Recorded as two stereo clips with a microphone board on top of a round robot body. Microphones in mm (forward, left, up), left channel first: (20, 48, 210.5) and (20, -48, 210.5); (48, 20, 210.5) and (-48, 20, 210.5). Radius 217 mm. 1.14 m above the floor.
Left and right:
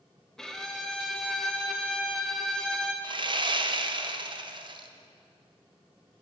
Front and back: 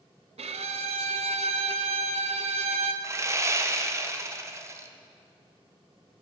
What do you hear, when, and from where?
0.4 s a violin: 175° left, 0.5 m
3.0 s sawing: 120° right, 0.8 m